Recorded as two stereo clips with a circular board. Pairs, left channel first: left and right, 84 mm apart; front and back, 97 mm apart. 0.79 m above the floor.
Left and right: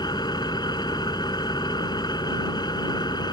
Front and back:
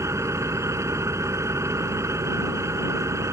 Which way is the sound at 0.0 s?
120° left.